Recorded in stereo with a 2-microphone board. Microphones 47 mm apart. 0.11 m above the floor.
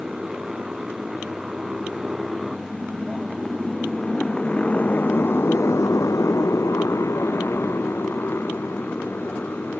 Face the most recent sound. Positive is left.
turn(degrees=35)  # may be behind; listen again after turning